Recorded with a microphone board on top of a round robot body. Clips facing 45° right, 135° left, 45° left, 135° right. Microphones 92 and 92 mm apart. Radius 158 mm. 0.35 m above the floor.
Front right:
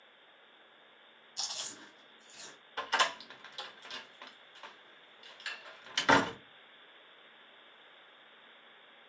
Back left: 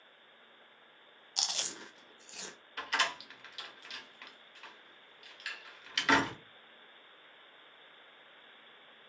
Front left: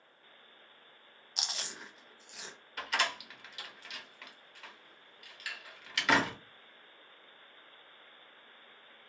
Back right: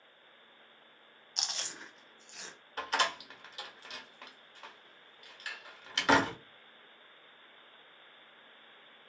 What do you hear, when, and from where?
1.4 s chewing: 130° left, 0.6 m
2.8 s a door slam: 90° right, 1.0 m